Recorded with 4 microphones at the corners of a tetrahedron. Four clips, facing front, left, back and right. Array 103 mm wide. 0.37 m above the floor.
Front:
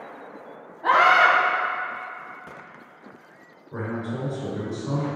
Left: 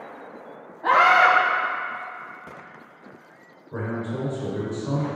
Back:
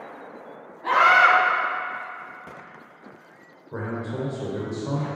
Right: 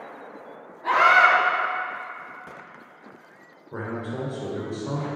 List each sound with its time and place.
0.8 s a scream: 50° left, 1.8 m
3.7 s a man speaking: 155° right, 1.5 m